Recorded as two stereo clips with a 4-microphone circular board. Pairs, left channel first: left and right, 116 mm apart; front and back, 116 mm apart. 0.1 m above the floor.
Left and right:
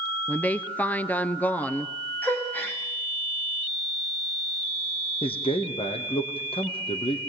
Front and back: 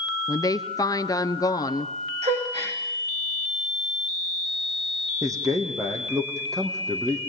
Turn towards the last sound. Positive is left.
turn(degrees=120)